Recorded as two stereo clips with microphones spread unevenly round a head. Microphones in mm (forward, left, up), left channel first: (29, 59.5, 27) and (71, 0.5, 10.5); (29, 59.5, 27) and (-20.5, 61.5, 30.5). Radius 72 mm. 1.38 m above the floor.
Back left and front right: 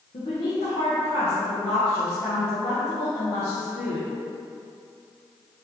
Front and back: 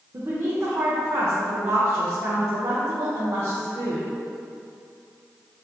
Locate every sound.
0.1 s a woman speaking: 140° left, 0.6 m